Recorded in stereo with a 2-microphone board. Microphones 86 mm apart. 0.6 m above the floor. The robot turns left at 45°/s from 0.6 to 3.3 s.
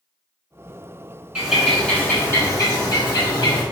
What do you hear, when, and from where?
1.4 s a bird: 170° right, 1.4 m; by 3.6 s 105° left, 1.4 m